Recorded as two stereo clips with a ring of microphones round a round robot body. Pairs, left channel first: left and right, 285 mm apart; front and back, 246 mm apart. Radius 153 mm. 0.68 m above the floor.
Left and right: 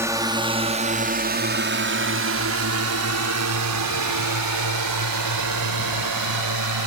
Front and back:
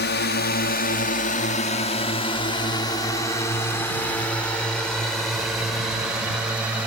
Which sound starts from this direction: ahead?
A drone, at 0.0 s.